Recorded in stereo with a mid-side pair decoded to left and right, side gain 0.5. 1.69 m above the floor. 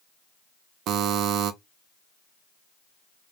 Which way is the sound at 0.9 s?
65° right.